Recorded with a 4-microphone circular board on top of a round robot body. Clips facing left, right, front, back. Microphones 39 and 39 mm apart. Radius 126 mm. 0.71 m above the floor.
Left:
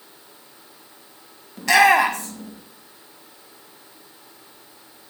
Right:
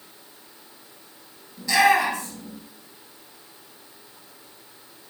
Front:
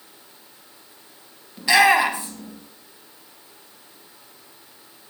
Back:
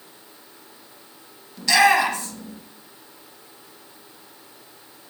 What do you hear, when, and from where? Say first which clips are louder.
1.6 s a shout: left 4 dB, front 1 dB; 70° left, 1.6 m